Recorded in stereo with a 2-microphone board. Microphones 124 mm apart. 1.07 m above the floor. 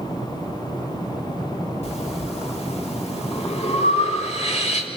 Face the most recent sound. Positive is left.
turn(degrees=60)  # may be behind; listen again after turning